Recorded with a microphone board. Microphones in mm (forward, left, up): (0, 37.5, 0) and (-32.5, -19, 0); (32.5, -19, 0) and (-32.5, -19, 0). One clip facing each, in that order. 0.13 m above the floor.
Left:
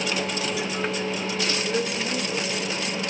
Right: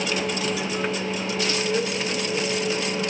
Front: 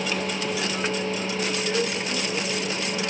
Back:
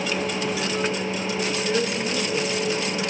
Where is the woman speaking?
110° left, 4.5 m.